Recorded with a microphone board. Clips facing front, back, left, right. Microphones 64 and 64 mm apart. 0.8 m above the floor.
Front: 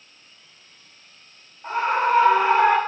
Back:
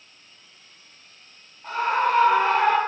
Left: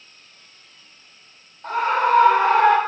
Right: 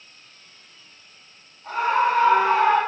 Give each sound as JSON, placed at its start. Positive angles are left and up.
{"t": 1.6, "sound": "a scream", "azimuth_deg": 60, "distance_m": 4.0}